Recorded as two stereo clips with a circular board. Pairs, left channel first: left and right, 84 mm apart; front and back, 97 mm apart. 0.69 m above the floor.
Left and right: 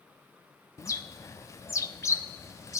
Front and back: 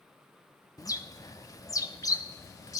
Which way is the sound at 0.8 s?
45° left.